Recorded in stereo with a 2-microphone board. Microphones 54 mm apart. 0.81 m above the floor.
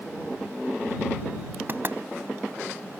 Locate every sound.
1.7 s knocking: 40° right (ahead or behind)